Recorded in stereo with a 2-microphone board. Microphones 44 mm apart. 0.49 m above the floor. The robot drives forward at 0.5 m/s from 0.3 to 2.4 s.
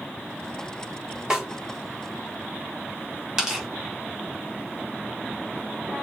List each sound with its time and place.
1.3 s a snare drum: 10° right (ahead or behind), 0.9 m
3.4 s tearing paper: 10° right (ahead or behind), 1.2 m